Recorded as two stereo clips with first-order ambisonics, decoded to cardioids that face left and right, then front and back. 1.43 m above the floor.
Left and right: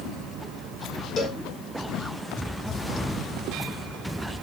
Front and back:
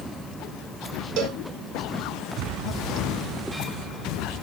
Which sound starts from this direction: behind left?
A cowbell, at 1.2 s.